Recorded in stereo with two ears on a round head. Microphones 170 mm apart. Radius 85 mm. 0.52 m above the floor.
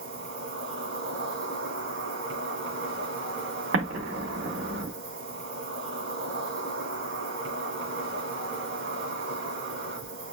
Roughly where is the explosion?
Right.